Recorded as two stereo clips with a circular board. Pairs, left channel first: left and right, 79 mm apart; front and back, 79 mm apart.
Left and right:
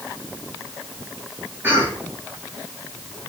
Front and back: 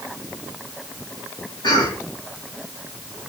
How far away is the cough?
About 3.5 m.